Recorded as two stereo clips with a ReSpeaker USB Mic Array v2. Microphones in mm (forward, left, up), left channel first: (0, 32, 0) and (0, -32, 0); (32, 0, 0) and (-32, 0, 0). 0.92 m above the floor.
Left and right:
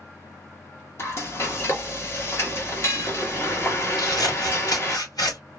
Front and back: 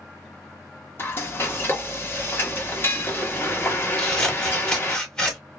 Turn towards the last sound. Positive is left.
turn(degrees=80)